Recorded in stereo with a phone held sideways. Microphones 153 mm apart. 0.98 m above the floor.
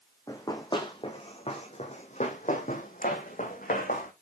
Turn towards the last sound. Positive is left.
turn(degrees=70)  # may be behind; listen again after turning